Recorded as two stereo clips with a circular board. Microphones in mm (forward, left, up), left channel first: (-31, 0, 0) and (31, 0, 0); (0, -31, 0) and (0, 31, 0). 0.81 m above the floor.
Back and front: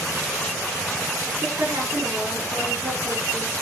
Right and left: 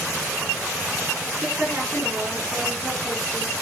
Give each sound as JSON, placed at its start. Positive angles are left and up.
{"t": 1.4, "sound": "a woman speaking", "azimuth_deg": 35, "distance_m": 9.5}